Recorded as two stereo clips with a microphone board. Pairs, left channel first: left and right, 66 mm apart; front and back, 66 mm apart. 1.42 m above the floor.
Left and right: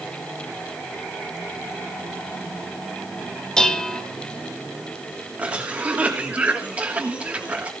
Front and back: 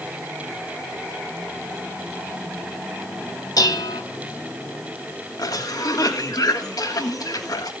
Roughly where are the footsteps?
No footsteps in this recording.